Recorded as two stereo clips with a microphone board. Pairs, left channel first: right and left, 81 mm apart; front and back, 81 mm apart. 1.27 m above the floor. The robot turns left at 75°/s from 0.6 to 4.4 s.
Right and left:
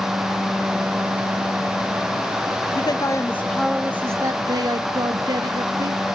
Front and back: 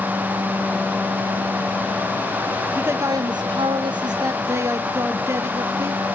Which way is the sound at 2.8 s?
110° right.